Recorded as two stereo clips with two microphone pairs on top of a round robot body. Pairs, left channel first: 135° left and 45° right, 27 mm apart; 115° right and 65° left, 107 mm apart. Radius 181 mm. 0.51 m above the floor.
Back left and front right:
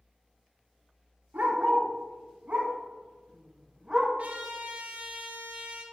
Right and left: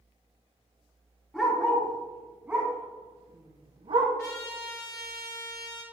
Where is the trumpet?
60° right, 3.5 m.